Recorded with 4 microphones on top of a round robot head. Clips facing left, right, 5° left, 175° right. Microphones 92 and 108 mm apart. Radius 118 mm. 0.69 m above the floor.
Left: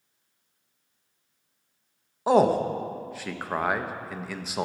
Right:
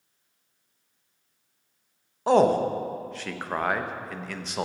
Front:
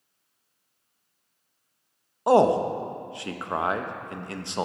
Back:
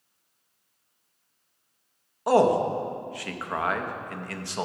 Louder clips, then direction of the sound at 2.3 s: Right 1 dB, front 1 dB; 15° left.